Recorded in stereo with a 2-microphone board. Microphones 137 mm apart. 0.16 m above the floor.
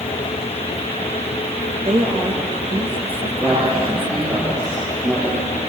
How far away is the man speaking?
About 6.5 m.